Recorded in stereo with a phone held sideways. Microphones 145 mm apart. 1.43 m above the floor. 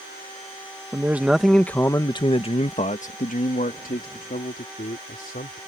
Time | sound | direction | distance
0.9 | a man speaking | 20° right (ahead or behind) | ?